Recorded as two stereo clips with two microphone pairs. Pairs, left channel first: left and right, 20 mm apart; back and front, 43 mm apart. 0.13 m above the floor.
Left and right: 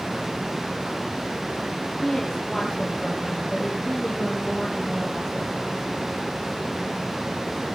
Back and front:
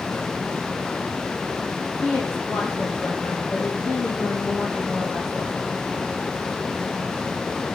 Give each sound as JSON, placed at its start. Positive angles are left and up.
{"t": 2.0, "sound": "a woman speaking", "azimuth_deg": 165, "distance_m": 6.0}